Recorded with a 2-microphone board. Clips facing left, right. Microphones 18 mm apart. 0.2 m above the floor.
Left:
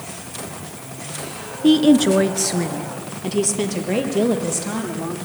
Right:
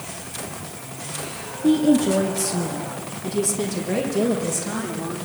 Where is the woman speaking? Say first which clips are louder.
Left 4 dB; 65° left (ahead or behind), 2 m; by 5.2 s 25° left (ahead or behind), 6 m.